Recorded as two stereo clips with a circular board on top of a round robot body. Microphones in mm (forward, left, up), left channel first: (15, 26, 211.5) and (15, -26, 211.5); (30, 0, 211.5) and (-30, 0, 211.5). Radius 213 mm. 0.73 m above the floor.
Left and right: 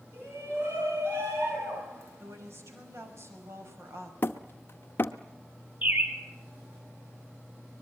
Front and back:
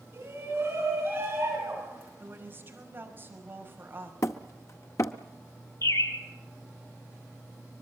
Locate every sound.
0.1 s a shout: 130° right, 9.5 m; by 2.1 s 125° right, 11 m
2.2 s a woman speaking: 125° right, 5.5 m
4.2 s hammering: 40° left, 0.7 m
5.8 s a bird: 30° right, 1.8 m